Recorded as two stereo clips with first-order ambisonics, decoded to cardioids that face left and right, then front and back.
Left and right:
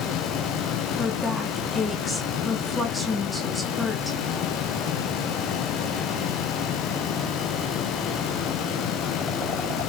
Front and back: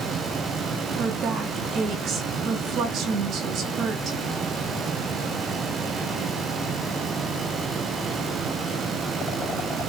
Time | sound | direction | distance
1.0 | a woman speaking | 170° left | 1.4 m